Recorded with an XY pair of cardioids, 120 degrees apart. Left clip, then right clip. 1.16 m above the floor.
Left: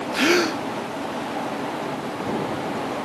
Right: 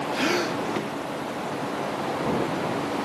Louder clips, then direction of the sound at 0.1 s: Left 7 dB; 40° left.